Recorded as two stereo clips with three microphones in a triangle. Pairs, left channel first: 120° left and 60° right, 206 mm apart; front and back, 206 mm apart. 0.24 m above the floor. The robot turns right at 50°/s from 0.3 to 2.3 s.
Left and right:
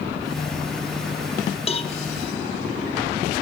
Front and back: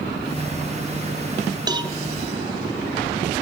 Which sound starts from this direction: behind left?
A cowbell, at 1.7 s.